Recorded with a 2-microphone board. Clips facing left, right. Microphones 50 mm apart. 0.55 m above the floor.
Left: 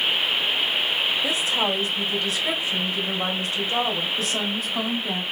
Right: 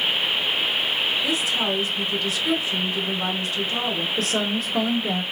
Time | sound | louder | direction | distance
1.2 | a woman speaking | even | 20° left (ahead or behind) | 1.7 m
4.2 | a woman speaking | right 2 dB | 60° right (ahead or behind) | 1.5 m